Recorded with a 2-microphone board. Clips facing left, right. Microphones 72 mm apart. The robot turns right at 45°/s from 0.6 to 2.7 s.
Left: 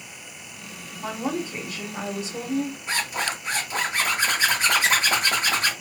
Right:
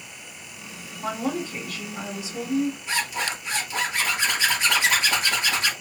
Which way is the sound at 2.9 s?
40° left (ahead or behind).